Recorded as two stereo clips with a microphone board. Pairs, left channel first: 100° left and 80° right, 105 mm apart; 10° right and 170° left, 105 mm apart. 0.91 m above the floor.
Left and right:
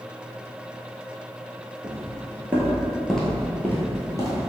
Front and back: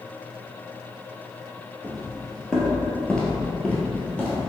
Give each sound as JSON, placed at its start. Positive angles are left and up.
{"t": 1.8, "sound": "footsteps", "azimuth_deg": -95, "distance_m": 1.0}